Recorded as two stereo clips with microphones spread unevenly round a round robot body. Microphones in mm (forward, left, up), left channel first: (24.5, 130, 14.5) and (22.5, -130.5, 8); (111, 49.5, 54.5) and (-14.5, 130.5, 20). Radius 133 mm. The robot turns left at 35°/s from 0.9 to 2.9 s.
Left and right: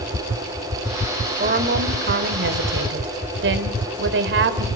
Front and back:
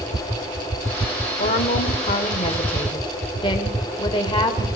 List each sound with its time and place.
1.4 s a woman speaking: 45° right, 1.7 m; by 4.7 s 100° right, 1.7 m